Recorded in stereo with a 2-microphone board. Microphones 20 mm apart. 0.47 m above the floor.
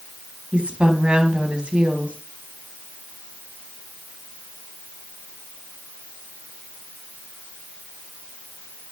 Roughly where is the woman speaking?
Right.